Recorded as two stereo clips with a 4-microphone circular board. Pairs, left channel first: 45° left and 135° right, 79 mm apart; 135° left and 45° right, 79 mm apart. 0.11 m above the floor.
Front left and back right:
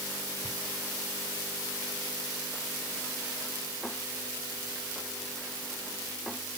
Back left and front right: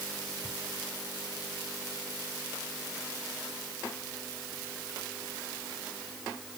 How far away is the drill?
No drill in this recording.